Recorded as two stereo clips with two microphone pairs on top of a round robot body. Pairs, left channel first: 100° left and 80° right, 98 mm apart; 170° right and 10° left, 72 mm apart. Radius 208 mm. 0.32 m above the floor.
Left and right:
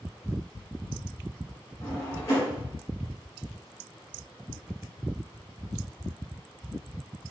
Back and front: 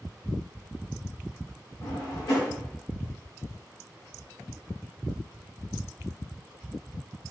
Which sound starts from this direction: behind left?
A drawer, at 1.8 s.